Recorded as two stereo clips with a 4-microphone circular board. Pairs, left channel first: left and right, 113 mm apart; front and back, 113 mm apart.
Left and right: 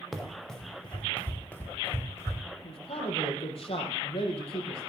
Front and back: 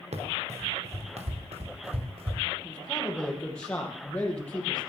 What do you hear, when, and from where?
0.1 s running footsteps: straight behind, 4 m; by 2.4 s 150° left, 4 m
2.6 s a man speaking: 80° left, 5 m